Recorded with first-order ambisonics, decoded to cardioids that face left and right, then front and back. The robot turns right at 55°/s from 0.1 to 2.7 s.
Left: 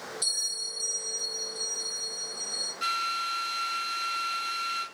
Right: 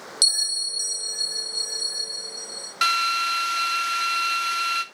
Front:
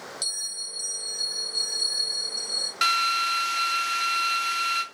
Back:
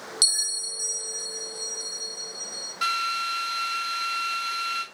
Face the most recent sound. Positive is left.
turn(degrees=-55)